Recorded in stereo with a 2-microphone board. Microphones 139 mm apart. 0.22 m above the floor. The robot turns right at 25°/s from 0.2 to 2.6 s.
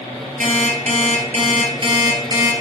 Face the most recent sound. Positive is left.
turn(degrees=-25)